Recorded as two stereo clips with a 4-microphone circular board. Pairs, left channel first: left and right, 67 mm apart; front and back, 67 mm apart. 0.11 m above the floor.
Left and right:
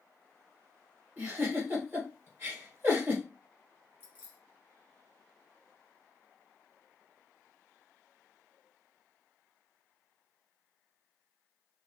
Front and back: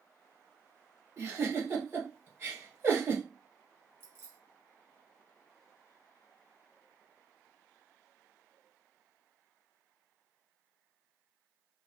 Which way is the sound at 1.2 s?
135° right.